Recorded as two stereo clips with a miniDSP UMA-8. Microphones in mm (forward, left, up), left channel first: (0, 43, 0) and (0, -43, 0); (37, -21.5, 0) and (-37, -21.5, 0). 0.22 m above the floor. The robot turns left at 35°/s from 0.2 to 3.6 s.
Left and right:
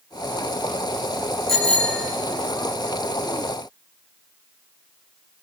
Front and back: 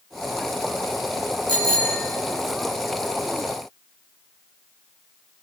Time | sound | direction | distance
1.5 | a bicycle bell | 175° left | 7.5 m